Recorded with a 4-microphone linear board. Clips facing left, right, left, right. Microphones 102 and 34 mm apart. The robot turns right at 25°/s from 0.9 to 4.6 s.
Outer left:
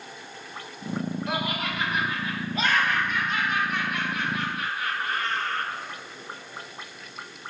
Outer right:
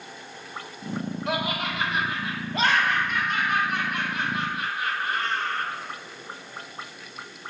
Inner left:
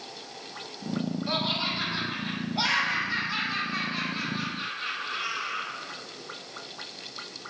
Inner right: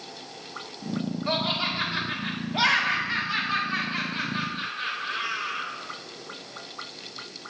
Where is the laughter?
70° right (ahead or behind), 1.7 m; by 5.7 s 25° right (ahead or behind), 1.7 m.